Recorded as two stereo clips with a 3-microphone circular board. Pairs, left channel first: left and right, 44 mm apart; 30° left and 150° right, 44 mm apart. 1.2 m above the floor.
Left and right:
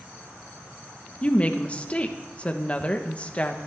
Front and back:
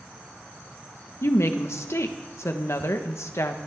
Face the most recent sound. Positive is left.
turn(degrees=30)